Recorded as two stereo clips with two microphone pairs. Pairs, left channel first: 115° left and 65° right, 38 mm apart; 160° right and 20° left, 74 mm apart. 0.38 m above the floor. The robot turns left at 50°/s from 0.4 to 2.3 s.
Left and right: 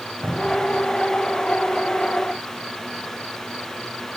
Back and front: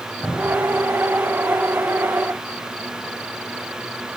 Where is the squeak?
I don't hear a squeak.